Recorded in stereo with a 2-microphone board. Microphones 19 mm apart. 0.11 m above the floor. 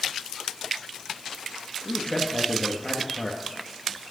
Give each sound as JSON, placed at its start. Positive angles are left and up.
{"t": 1.9, "sound": "a man speaking", "side_deg": 40, "distance_m": 2.0}